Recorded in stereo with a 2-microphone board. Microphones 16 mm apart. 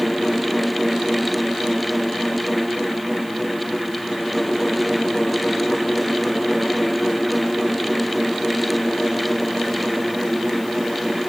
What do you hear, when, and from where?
Only background noise.